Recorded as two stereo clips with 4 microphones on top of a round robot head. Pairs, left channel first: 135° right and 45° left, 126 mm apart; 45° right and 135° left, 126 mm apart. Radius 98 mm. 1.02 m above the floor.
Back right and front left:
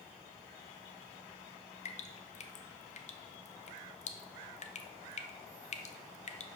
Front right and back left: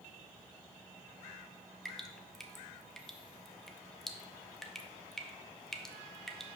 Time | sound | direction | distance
1.9 | dripping | 130° right | 1.0 m